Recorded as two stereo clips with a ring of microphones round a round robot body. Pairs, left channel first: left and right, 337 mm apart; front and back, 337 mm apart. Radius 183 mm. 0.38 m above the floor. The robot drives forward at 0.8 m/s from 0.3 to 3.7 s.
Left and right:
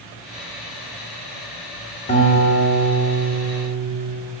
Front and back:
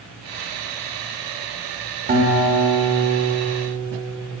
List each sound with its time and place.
2.1 s a guitar: 140° left, 1.7 m; by 4.1 s 165° left, 2.5 m